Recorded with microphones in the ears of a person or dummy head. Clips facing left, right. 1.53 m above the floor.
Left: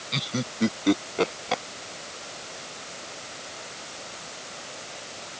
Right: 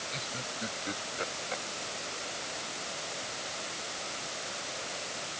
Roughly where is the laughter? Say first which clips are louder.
Left 10 dB; left.